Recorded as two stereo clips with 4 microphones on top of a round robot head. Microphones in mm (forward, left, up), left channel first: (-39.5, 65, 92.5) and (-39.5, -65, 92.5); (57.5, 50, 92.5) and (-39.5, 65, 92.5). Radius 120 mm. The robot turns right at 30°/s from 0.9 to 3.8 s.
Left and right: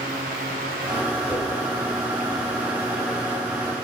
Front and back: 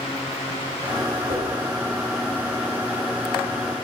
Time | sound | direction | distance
1.3 | a whoosh | 175° left | 4 m